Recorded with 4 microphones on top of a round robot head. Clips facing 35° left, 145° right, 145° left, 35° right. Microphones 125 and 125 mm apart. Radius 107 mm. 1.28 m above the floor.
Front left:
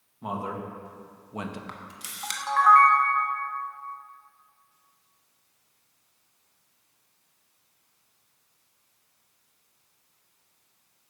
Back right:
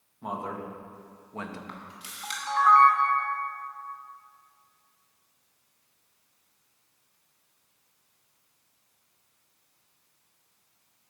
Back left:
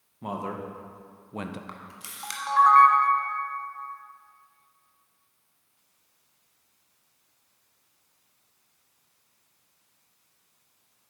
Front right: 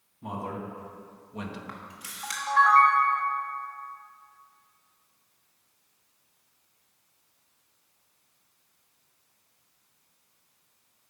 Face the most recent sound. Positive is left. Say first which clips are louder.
# front left 1 dB, front right 1 dB
turn(degrees=80)